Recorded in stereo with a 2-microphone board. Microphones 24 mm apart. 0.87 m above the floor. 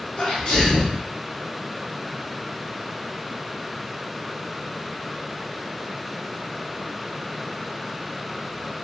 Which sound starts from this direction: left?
A sneeze, at 0.2 s.